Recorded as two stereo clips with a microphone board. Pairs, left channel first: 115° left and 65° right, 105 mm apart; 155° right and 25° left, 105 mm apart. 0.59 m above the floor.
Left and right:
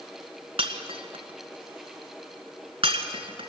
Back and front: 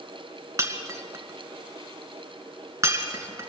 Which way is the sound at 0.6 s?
40° right.